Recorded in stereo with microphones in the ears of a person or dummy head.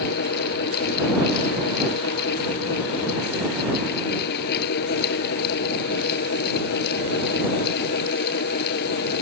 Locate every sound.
0.0 s a fan: 60° left (ahead or behind)